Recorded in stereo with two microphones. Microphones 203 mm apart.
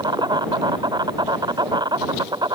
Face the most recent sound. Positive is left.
turn(degrees=-20)  # may be behind; listen again after turning